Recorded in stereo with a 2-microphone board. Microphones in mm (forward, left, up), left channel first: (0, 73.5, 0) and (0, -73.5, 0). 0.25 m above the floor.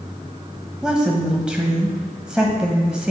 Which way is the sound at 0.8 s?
5° right (ahead or behind).